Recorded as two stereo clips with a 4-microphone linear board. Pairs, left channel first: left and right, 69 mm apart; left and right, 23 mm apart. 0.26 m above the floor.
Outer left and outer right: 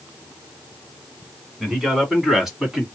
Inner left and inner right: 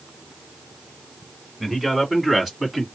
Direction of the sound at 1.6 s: Centre (ahead or behind).